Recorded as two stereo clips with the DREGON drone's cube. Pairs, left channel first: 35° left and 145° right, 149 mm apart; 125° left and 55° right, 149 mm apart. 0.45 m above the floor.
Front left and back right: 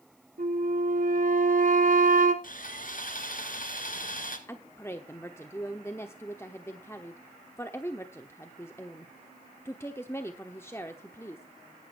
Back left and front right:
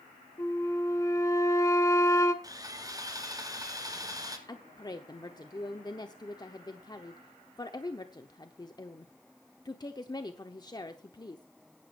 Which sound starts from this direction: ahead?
Sawing, at 2.4 s.